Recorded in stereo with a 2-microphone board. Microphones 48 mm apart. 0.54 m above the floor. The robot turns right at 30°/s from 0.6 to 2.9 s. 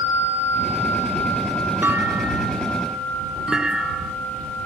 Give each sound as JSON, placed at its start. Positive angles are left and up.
{"t": 1.8, "sound": "a clunk", "azimuth_deg": -45}